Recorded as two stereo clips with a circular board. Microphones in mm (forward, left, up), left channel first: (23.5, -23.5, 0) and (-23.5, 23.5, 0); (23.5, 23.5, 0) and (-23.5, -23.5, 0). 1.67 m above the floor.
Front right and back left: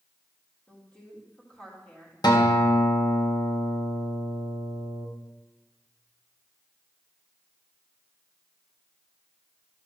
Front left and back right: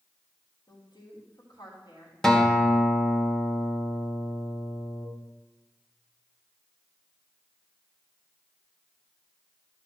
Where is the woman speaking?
30° left, 3.5 m.